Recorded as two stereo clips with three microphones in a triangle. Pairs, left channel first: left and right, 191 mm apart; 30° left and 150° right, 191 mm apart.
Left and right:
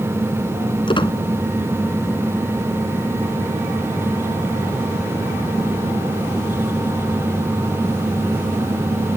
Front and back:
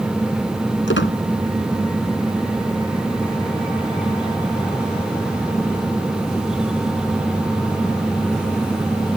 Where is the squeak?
25° left.